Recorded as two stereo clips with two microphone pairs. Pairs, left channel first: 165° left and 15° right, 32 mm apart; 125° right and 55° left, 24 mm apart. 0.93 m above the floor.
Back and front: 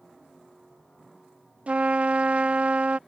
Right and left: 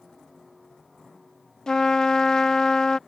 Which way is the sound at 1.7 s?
60° right.